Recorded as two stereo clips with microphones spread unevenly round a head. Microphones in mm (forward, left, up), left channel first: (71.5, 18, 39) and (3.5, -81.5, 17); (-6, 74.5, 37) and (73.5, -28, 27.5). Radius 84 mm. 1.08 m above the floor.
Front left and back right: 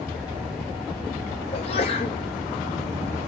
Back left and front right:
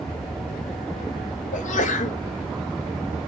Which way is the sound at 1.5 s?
110° left.